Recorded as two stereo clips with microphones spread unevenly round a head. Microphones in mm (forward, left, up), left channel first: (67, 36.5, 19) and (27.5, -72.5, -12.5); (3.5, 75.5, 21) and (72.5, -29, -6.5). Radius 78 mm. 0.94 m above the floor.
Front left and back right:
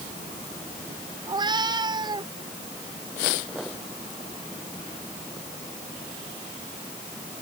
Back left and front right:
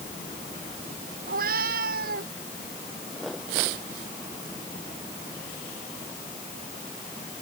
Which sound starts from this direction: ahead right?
A cat meowing, at 1.3 s.